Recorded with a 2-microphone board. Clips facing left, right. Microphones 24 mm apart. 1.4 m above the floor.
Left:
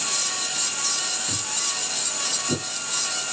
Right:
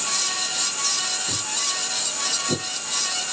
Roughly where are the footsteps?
Right.